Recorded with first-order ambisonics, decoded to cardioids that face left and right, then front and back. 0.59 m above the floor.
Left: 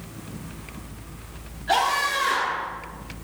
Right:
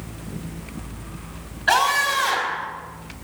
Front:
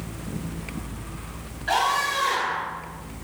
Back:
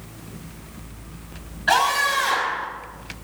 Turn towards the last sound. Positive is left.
turn(degrees=-115)